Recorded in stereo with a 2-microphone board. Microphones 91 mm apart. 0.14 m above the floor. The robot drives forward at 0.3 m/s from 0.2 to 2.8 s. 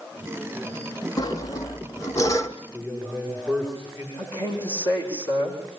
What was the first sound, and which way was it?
Sawing, 45° left (ahead or behind).